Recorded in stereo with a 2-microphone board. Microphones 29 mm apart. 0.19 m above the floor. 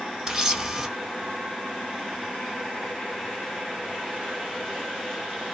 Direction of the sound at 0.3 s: 25° right (ahead or behind).